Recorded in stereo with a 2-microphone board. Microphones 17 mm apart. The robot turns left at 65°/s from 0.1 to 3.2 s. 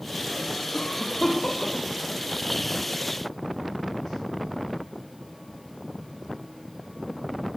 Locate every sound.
0.7 s a cough: 55° left (ahead or behind), 5.5 m; by 3.1 s 75° right (ahead or behind), 5.5 m